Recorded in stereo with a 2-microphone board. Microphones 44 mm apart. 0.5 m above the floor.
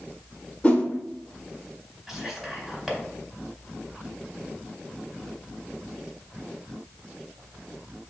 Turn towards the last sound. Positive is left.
turn(degrees=-5)  # may be behind; listen again after turning